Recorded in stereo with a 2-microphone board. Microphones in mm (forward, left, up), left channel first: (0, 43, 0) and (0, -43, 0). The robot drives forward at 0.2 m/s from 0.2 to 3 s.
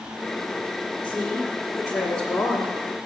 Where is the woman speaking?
5° right (ahead or behind), 1.1 m.